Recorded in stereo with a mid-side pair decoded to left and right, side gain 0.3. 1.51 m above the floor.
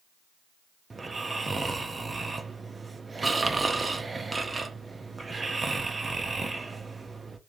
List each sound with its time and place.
0.9 s snoring: 40° right, 0.6 m